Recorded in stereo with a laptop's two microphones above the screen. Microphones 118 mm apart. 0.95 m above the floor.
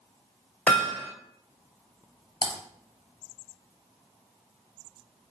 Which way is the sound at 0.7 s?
10° left (ahead or behind).